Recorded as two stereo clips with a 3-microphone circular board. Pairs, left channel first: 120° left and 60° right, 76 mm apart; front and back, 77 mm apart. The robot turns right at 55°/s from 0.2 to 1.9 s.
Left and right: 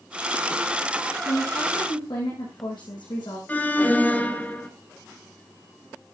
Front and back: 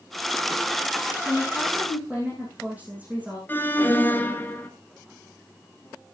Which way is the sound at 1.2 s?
75° left.